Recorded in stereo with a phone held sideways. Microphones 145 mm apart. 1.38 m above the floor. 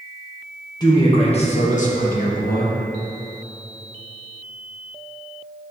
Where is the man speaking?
25° left (ahead or behind), 1.1 m; by 2.8 s 80° left, 1.2 m.